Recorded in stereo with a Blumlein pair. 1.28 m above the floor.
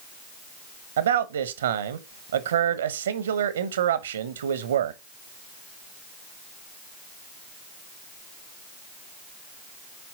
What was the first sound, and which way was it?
A man speaking, 65° right.